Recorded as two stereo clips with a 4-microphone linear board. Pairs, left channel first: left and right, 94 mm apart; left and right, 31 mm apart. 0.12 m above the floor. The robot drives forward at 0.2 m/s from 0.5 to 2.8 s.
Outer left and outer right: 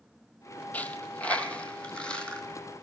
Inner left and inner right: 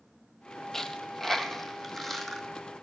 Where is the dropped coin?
15° left (ahead or behind), 0.5 m; by 2.8 s 10° left (ahead or behind), 0.9 m.